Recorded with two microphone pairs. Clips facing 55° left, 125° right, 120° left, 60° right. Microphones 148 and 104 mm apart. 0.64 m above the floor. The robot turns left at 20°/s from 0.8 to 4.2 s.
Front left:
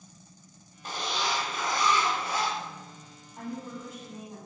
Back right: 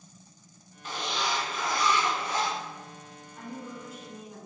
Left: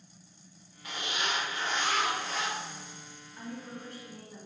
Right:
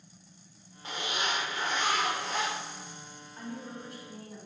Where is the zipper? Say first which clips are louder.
Even, right 1 dB; 5° left, 0.8 m; by 2.5 s 30° right, 0.8 m.